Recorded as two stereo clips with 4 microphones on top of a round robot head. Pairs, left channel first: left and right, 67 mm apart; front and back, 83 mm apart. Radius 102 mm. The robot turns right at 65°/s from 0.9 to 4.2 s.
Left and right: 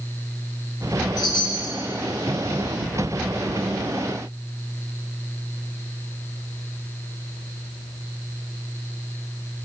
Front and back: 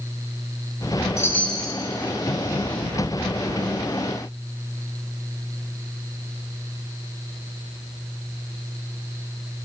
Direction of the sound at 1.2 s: 55° left.